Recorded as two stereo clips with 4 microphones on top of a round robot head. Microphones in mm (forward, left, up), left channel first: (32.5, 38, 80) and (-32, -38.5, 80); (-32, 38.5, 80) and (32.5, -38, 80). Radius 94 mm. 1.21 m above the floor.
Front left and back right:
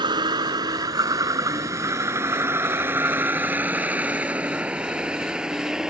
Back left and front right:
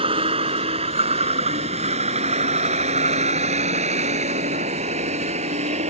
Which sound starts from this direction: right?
A vehicle, at 0.0 s.